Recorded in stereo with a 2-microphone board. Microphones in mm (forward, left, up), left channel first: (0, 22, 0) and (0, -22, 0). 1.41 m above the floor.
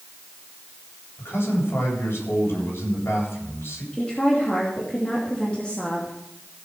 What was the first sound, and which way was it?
A man speaking, 60° left (ahead or behind).